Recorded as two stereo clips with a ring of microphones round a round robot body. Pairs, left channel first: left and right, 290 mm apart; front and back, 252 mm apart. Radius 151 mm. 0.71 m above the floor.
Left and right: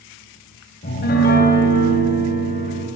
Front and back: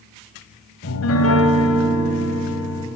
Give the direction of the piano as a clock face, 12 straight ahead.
11 o'clock.